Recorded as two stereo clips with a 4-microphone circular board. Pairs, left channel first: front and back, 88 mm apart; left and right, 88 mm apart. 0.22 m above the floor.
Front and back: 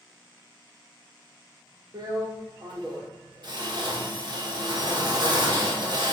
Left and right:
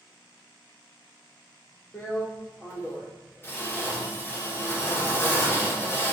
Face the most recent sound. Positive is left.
turn(degrees=155)